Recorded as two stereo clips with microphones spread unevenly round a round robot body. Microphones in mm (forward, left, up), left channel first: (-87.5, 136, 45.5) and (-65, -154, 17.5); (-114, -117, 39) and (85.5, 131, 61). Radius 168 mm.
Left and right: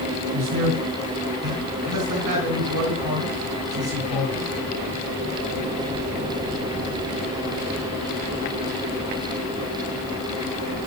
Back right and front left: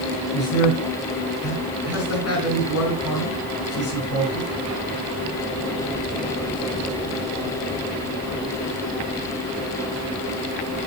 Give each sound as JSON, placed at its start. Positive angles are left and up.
{"t": 0.3, "sound": "a man speaking", "azimuth_deg": -85, "distance_m": 4.0}